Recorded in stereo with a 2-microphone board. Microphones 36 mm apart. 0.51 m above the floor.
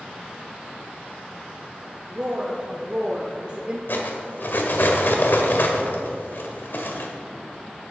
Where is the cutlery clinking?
70° left (ahead or behind), 1.3 m.